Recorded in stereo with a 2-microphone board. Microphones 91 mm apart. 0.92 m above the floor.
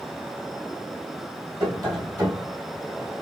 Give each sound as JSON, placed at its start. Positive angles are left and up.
{"t": 1.6, "sound": "tapping", "side_deg": -45, "distance_m": 3.0}